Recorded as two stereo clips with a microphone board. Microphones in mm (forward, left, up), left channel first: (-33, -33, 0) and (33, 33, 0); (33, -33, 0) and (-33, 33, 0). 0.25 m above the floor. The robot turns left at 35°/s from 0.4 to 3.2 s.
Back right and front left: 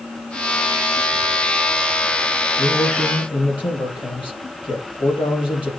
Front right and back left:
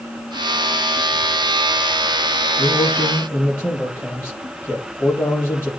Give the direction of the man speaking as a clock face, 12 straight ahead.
3 o'clock.